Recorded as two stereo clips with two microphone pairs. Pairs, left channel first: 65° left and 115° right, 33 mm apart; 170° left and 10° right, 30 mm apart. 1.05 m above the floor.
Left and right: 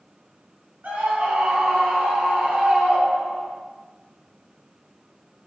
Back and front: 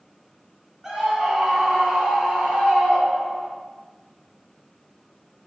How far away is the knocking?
I don't hear knocking.